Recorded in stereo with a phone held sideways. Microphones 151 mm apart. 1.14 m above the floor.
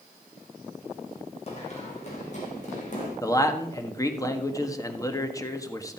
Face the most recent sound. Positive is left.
turn(degrees=20)  # may be behind; listen again after turning